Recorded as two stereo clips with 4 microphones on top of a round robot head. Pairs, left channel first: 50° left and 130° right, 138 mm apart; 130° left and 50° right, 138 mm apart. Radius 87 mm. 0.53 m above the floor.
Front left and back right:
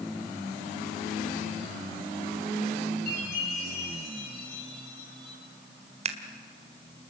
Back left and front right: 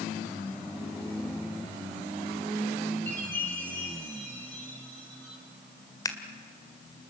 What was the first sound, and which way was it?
A chime, 50° left.